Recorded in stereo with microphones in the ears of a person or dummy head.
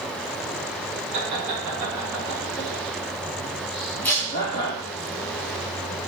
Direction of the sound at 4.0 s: 10° left (ahead or behind).